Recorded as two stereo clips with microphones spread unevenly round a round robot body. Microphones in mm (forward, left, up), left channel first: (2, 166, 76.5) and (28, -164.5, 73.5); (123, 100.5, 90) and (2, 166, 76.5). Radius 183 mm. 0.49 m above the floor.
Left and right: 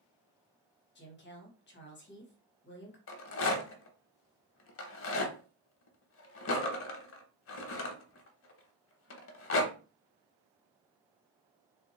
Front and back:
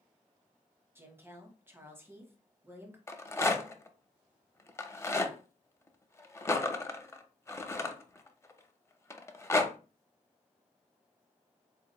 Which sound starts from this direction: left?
A woman speaking, at 0.9 s.